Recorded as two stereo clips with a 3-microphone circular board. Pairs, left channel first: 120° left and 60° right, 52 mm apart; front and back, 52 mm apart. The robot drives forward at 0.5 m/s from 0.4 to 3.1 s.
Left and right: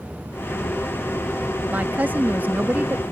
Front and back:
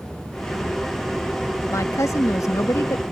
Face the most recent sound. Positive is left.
turn(degrees=-10)